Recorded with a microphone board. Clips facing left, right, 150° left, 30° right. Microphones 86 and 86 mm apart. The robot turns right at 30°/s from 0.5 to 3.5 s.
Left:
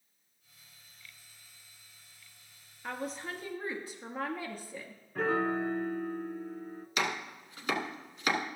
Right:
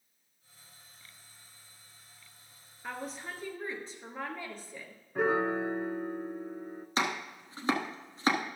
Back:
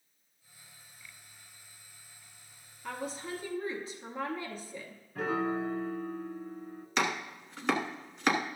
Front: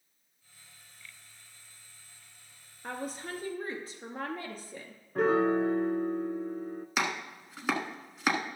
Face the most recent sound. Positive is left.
turn(degrees=-110)